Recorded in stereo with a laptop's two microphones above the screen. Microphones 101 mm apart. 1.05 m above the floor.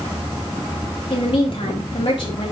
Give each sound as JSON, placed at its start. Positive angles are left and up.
{"t": 1.1, "sound": "a woman speaking", "side_deg": 45, "distance_m": 2.0}